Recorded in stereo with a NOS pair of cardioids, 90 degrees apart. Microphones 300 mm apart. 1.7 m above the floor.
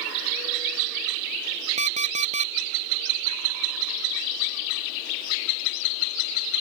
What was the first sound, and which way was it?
An alarm clock, 25° right.